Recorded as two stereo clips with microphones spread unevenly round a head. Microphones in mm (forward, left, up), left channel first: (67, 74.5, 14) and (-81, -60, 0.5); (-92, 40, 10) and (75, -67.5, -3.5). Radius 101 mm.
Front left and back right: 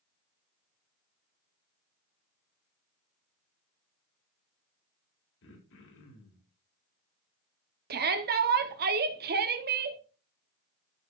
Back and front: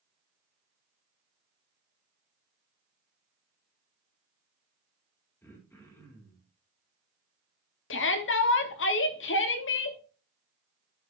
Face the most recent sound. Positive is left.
turn(degrees=180)